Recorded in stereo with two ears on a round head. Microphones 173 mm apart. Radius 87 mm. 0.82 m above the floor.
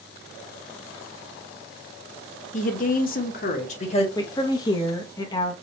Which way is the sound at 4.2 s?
20° left (ahead or behind).